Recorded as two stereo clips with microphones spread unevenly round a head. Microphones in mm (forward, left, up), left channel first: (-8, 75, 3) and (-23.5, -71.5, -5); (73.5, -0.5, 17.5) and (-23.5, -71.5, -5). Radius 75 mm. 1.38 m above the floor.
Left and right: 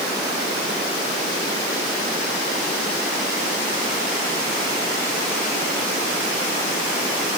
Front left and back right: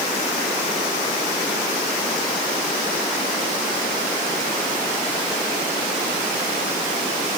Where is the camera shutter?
I don't hear a camera shutter.